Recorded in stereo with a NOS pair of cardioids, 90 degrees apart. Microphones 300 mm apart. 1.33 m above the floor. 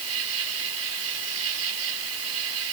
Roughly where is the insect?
Ahead right.